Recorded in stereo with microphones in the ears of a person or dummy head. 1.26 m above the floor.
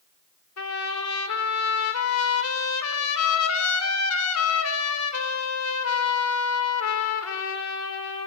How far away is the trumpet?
About 4 m.